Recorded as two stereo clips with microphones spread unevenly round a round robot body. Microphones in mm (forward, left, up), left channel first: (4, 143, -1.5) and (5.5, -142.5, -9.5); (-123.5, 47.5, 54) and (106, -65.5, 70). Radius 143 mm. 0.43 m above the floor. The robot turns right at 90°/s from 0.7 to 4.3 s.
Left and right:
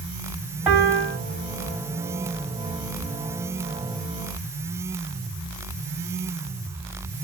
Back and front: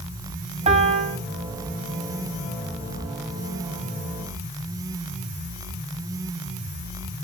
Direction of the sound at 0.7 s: 10° right.